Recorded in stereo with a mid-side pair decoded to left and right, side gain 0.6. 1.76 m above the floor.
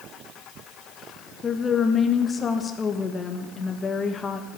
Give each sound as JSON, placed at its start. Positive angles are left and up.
{"t": 1.4, "sound": "a woman speaking", "azimuth_deg": 30, "distance_m": 1.9}